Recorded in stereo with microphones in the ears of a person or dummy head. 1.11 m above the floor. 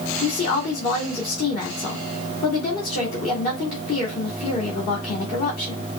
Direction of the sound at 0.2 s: 40° left (ahead or behind).